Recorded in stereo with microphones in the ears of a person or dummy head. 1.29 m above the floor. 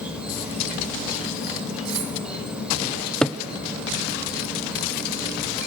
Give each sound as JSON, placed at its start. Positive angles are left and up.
{"t": 0.0, "sound": "an insect", "side_deg": -5, "distance_m": 4.5}
{"t": 1.9, "sound": "cutlery clinking", "side_deg": -85, "distance_m": 5.0}
{"t": 3.2, "sound": "a cupboard door", "side_deg": 5, "distance_m": 0.6}